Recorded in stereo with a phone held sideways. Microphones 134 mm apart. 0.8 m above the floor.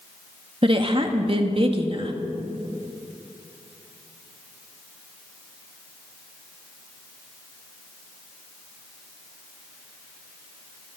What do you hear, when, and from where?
0.6 s a woman speaking: 40° right (ahead or behind), 1.4 m